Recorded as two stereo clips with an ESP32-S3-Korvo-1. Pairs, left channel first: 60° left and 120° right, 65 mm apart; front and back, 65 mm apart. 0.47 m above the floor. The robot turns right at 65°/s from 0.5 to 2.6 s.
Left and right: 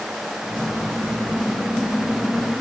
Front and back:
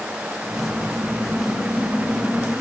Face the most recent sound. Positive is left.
No sound to turn to.